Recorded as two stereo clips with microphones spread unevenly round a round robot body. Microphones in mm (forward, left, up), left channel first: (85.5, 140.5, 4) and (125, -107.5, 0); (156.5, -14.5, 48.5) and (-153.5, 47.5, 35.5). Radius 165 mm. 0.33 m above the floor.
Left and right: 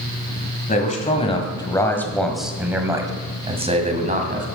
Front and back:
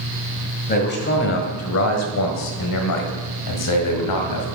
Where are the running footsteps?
I don't hear running footsteps.